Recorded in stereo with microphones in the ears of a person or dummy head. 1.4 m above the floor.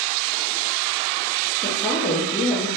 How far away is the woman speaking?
About 0.8 m.